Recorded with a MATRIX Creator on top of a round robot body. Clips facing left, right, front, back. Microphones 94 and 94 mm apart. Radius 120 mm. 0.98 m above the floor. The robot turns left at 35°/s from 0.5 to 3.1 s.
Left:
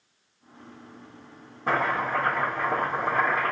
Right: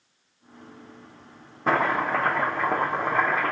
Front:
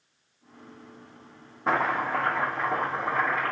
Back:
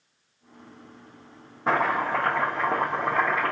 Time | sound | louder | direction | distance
1.7 | chopping | right 3 dB, back 2 dB | 95° right | 0.5 m